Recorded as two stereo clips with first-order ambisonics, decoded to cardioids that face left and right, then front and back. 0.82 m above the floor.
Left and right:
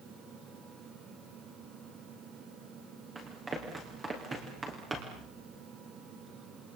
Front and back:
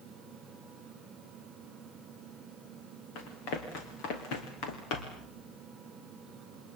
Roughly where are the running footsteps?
Ahead.